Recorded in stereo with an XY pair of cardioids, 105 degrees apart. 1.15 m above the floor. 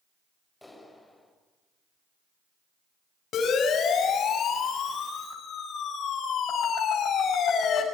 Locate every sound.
0.6 s a clap: 5° left, 5.5 m
3.3 s a siren: 60° left, 6.5 m